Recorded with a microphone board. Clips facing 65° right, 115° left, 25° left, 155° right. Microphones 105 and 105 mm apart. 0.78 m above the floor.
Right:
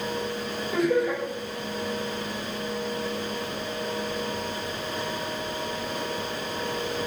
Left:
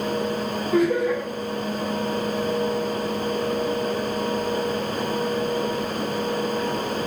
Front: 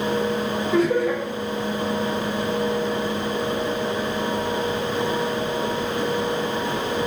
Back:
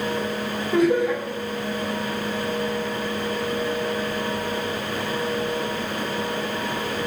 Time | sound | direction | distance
0.7 | laughter | 145° left | 1.5 m